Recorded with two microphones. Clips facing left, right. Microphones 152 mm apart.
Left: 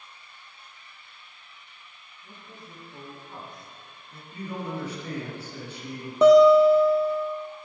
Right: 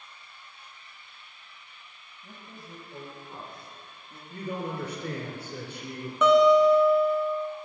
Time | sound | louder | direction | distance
2.2 | a man speaking | right 1 dB | 35° right (ahead or behind) | 3.5 m
4.3 | a man speaking | even | 45° right (ahead or behind) | 2.5 m
6.2 | a guitar | left 4 dB | 35° left (ahead or behind) | 1.3 m